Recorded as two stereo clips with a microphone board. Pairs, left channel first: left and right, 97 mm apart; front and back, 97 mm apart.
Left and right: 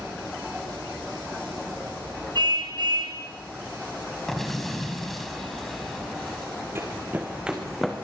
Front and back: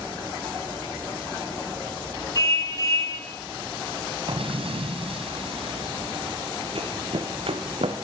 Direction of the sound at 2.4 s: 50° right.